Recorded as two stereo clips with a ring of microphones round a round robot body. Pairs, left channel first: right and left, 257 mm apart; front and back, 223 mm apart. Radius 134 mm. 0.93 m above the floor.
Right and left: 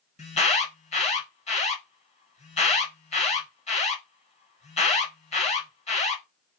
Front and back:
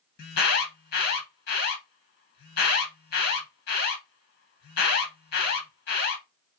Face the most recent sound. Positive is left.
turn(degrees=-30)